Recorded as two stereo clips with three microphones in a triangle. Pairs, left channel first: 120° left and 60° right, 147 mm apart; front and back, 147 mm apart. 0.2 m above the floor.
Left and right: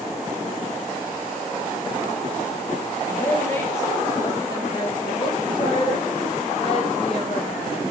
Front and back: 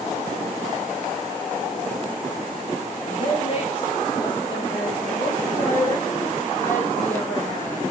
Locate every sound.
3.1 s a woman speaking: 40° left, 4 m; by 7.8 s 80° left, 7.5 m